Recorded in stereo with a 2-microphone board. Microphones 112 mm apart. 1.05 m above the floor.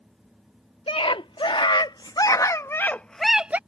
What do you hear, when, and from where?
0.9 s a scream: 50° left (ahead or behind); by 3.6 s 15° right (ahead or behind)